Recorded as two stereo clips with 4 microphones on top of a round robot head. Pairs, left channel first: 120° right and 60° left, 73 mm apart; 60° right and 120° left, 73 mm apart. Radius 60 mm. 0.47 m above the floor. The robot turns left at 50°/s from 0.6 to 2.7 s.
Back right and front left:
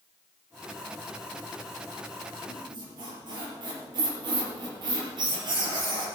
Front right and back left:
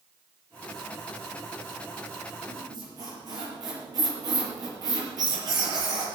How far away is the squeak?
About 4.5 m.